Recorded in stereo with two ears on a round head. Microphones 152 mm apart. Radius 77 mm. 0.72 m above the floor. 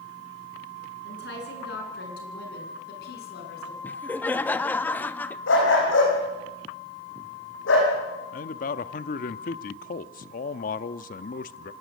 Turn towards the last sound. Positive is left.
turn(degrees=50)  # may be behind; listen again after turning